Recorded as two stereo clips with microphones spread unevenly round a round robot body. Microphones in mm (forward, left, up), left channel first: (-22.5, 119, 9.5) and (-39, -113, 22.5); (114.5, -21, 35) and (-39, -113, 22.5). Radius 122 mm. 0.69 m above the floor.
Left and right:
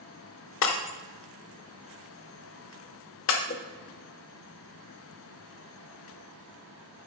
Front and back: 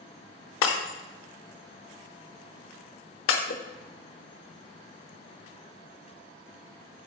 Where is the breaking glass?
45° left, 1.0 m.